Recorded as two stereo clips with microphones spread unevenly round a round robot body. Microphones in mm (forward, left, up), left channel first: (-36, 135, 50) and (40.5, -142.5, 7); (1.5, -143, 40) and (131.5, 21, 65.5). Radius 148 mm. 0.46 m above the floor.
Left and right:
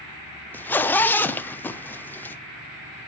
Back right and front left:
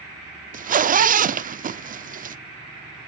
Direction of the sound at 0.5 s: 15° left.